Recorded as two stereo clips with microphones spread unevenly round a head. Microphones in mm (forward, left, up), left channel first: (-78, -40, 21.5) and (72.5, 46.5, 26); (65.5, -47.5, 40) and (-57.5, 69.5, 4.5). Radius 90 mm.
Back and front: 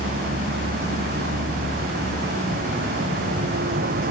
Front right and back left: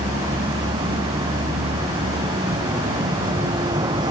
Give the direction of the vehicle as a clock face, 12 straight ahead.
10 o'clock.